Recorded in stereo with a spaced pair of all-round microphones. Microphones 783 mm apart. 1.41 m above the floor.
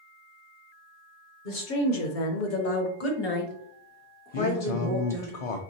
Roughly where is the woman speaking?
Left.